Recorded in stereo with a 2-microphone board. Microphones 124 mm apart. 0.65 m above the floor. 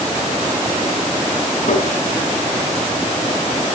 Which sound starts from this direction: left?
Tapping, at 1.7 s.